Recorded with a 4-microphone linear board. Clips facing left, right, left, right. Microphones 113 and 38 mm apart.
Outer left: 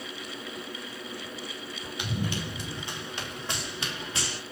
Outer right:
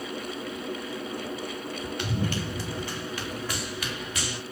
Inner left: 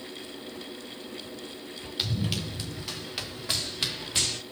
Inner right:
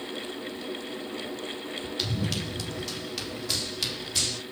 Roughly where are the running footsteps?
Centre.